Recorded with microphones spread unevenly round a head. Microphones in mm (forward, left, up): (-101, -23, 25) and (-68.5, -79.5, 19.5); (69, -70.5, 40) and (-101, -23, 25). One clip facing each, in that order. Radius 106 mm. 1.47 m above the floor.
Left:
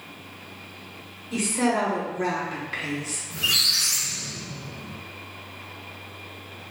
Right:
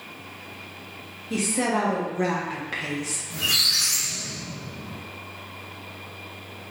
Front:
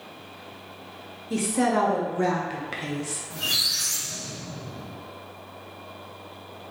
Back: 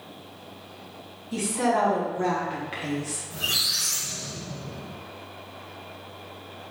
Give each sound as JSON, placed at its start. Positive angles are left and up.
{"t": 1.3, "sound": "a woman speaking", "azimuth_deg": -15, "distance_m": 2.0}
{"t": 3.3, "sound": "a squeak", "azimuth_deg": -25, "distance_m": 2.5}